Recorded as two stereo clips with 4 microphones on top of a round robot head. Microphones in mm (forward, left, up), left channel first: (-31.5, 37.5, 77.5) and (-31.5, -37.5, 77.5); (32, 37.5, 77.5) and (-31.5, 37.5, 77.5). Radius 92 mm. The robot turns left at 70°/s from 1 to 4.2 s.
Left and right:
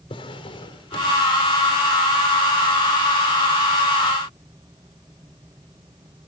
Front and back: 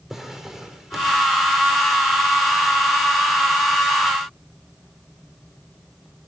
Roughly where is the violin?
No violin in this recording.